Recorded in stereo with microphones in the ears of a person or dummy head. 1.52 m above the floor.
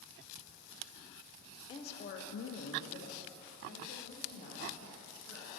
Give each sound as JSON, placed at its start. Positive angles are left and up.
{"t": 1.7, "sound": "a woman speaking", "side_deg": 30, "distance_m": 0.6}